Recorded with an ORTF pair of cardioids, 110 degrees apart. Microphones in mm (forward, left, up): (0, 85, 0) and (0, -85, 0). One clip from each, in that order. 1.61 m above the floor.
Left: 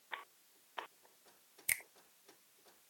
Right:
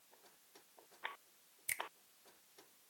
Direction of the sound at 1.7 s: 25° left.